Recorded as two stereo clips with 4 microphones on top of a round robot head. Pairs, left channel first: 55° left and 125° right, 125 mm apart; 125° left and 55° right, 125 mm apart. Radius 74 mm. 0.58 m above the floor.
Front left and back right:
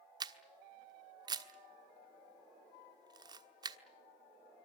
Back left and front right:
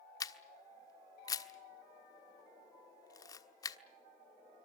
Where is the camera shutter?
175° right, 1.3 m.